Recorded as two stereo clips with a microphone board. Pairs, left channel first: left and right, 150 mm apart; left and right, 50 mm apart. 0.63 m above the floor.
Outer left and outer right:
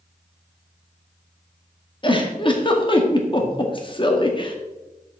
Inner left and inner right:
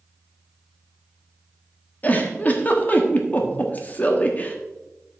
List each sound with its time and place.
2.0 s a giggle: 35° left (ahead or behind), 1.3 m